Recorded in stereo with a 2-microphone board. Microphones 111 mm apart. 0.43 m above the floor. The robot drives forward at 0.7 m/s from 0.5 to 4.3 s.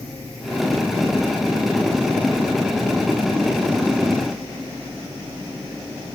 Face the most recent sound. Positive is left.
No sound to turn to.